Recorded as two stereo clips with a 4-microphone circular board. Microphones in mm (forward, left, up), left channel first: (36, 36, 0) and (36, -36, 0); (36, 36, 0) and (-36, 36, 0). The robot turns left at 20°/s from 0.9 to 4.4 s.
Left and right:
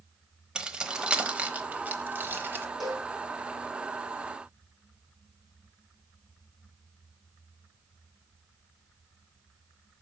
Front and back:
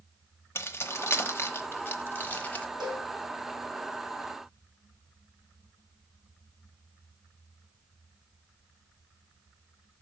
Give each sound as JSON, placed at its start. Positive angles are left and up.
{"t": 0.6, "sound": "keys jangling", "azimuth_deg": -20, "distance_m": 0.9}
{"t": 2.8, "sound": "a cowbell", "azimuth_deg": 180, "distance_m": 2.5}